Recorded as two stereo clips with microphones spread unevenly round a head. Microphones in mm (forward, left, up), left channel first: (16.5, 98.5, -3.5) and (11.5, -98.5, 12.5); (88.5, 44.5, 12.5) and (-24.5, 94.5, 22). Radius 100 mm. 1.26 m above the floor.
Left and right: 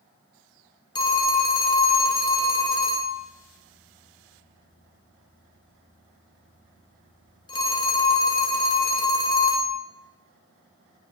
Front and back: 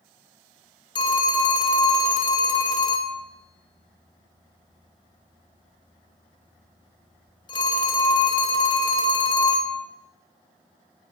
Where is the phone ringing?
20° left, 0.8 m.